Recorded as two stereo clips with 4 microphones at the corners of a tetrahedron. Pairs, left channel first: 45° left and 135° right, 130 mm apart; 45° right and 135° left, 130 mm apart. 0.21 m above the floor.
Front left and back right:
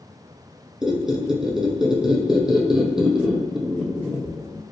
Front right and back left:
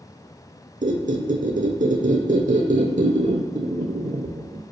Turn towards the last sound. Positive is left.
turn(degrees=140)